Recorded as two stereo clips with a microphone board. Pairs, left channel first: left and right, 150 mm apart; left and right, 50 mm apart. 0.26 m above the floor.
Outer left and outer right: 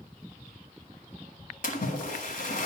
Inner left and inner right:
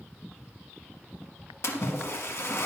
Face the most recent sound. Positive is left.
turn(degrees=65)  # may be behind; listen again after turning